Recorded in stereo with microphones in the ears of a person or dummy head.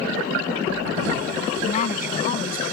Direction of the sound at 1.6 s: 35° left (ahead or behind).